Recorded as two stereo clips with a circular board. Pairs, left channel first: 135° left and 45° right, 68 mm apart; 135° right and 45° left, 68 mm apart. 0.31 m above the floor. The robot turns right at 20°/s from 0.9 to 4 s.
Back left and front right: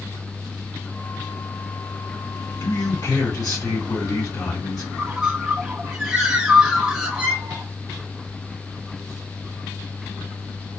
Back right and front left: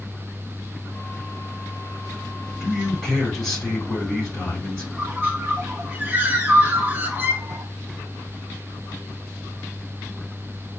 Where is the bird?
25° left, 0.9 m.